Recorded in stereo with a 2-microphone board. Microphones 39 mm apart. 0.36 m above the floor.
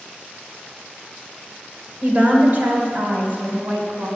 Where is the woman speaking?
40° right (ahead or behind), 2.0 m.